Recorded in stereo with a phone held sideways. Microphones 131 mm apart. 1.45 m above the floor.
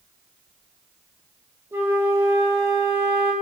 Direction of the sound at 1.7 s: 20° right (ahead or behind).